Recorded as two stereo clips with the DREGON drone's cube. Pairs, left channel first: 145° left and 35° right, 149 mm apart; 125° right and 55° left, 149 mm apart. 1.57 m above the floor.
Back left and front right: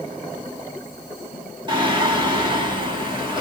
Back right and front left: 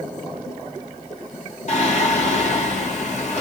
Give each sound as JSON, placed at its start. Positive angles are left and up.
{"t": 1.7, "sound": "singing", "azimuth_deg": -90, "distance_m": 1.3}